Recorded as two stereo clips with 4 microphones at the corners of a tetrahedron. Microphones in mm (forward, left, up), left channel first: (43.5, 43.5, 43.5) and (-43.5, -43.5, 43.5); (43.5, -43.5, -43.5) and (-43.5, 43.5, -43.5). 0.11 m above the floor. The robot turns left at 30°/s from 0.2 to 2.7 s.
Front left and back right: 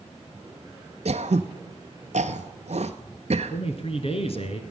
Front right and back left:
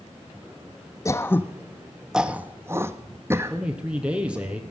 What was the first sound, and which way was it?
Throat clearing, 110° right.